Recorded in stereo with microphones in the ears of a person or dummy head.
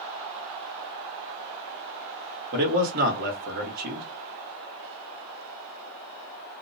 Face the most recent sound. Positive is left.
turn(degrees=-45)  # may be behind; listen again after turning